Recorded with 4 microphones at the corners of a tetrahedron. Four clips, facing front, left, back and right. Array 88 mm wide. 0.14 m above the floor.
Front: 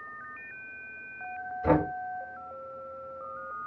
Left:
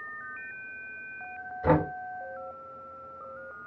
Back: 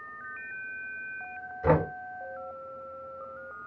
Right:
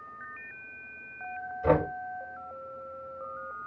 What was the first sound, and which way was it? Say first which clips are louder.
Knocking: even, even; 145° left.